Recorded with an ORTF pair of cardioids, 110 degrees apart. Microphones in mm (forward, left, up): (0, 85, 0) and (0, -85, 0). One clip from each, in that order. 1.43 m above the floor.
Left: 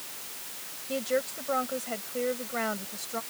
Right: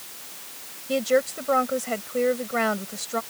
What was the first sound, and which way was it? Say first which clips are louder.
A woman speaking: right 7 dB; 40° right.